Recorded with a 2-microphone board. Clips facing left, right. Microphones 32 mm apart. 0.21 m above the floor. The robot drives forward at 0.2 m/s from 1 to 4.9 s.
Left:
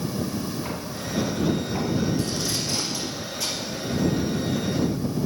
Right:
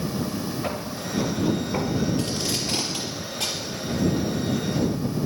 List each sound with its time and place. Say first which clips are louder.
0.6 s footsteps: right 2 dB; 60° right (ahead or behind), 5.5 m; by 2.1 s 55° right (ahead or behind), 4 m
2.2 s tape being pulled: even; 45° right (ahead or behind), 3.5 m